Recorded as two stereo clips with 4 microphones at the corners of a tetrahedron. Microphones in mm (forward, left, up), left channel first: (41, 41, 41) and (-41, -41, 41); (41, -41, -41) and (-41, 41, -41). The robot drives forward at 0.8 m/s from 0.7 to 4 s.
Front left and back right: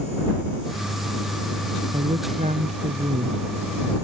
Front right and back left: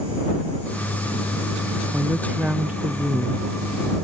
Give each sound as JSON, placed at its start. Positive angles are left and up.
{"t": 1.9, "sound": "a woman speaking", "azimuth_deg": -145}